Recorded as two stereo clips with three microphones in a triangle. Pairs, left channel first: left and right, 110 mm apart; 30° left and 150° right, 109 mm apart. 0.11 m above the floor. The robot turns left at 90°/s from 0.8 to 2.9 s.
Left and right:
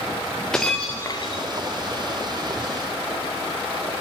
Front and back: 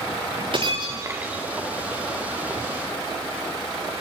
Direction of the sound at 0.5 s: 175° left.